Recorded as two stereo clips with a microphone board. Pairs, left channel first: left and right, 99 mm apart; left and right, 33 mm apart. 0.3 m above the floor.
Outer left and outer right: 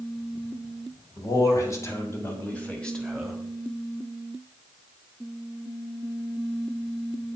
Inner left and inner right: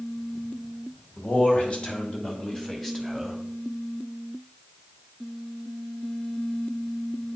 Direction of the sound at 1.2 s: 40° left (ahead or behind).